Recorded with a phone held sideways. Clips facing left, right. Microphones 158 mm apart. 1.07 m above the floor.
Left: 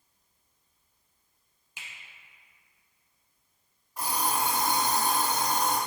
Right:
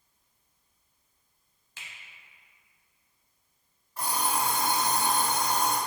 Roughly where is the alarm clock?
Centre.